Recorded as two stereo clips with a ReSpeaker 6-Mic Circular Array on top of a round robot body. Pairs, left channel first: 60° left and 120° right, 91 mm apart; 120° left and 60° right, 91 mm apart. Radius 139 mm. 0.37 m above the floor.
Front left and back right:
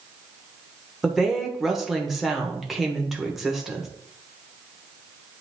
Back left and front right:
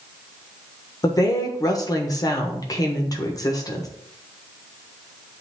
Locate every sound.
1.0 s a woman speaking: 155° left, 1.3 m